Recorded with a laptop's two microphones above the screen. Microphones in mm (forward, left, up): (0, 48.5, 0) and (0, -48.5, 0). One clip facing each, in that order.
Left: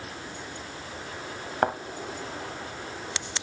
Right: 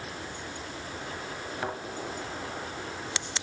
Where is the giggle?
I don't hear a giggle.